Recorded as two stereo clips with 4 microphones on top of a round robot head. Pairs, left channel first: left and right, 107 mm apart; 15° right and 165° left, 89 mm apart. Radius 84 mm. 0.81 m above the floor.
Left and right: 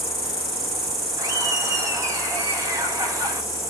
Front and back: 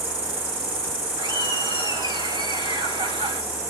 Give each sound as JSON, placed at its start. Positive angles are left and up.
{"t": 0.0, "sound": "an insect", "azimuth_deg": 180, "distance_m": 4.0}
{"t": 1.2, "sound": "laughter", "azimuth_deg": -145, "distance_m": 4.5}